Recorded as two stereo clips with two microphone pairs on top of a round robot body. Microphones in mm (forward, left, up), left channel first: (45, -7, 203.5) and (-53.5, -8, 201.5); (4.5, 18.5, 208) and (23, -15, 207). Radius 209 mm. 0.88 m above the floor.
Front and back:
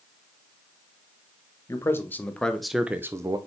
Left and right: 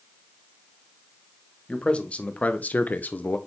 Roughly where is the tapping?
I don't hear tapping.